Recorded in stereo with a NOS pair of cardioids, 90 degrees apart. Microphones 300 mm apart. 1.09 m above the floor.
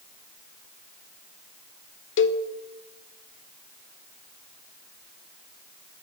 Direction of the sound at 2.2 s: 40° left.